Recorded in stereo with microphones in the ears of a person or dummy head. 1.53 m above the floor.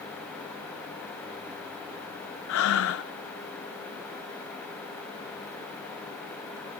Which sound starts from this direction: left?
Breathing, at 2.5 s.